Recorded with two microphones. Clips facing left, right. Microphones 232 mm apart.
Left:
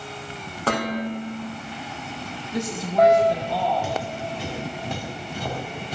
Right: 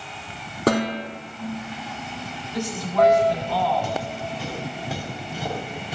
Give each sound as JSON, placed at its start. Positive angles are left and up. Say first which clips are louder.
{"t": 0.7, "sound": "dishes clattering", "louder": "right 3 dB", "side_deg": -40, "distance_m": 3.0}
{"t": 2.5, "sound": "a woman speaking", "louder": "left 1 dB", "side_deg": 25, "distance_m": 1.1}
{"t": 3.8, "sound": "footsteps", "louder": "even", "side_deg": 5, "distance_m": 3.0}